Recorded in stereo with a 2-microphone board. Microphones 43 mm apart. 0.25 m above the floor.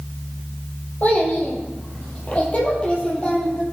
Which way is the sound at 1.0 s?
45° left (ahead or behind).